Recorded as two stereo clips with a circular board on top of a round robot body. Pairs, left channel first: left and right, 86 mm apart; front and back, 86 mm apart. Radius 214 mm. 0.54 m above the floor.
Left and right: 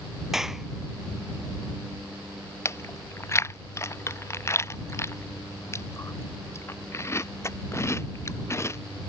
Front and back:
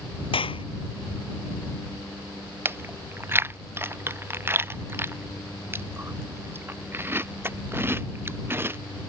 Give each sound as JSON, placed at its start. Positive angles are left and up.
{"t": 0.3, "sound": "a clap", "azimuth_deg": -5}
{"t": 2.6, "sound": "chewing", "azimuth_deg": 130}